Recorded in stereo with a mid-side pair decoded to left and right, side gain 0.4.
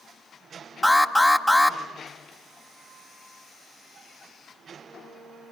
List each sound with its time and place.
0.8 s an alarm: 10° left, 3 m